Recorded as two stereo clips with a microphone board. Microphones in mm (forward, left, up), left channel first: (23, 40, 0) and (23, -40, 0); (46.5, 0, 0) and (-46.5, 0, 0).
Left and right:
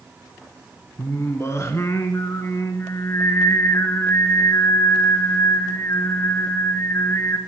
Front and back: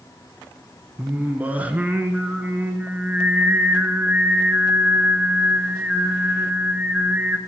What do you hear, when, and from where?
1.0 s singing: 115° left, 1.1 m